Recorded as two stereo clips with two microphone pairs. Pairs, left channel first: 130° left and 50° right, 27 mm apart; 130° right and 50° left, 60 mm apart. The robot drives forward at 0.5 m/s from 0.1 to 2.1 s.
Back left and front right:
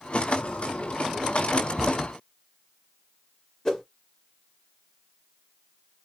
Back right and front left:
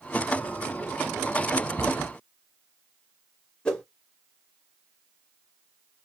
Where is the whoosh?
165° left, 0.8 m.